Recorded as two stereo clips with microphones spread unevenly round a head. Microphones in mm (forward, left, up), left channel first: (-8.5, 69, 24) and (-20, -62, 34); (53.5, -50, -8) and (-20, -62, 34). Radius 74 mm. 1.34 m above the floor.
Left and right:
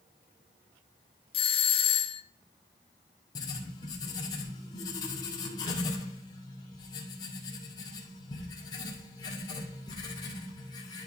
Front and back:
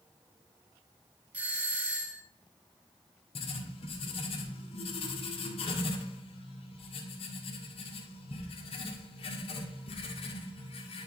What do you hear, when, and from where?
1.3 s a doorbell: 90° left, 1.3 m
3.4 s writing: 20° left, 1.8 m